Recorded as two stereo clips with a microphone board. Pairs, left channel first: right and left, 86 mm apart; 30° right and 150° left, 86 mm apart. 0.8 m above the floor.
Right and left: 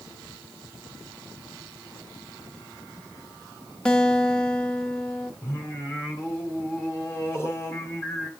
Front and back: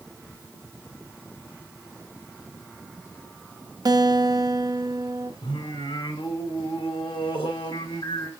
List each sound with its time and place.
3.9 s a guitar: 170° right, 0.7 m
5.4 s singing: 30° right, 2.5 m